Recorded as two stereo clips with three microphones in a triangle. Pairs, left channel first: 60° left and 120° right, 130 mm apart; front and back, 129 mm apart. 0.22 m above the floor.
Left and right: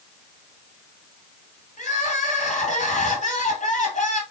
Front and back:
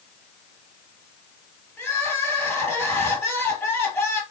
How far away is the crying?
About 2.5 m.